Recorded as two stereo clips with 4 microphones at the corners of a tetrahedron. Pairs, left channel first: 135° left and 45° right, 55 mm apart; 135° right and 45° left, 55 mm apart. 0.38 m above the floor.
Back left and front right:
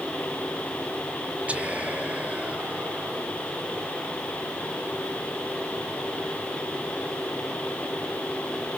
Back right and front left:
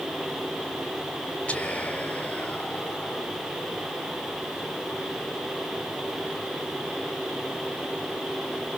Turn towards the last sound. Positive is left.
turn(degrees=-90)